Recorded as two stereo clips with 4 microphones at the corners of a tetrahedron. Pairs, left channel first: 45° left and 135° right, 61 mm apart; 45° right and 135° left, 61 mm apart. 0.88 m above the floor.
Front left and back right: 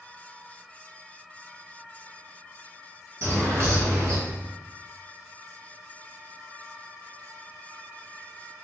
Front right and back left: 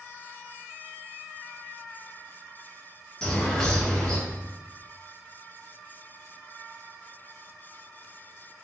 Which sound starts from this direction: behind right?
A bird, at 3.2 s.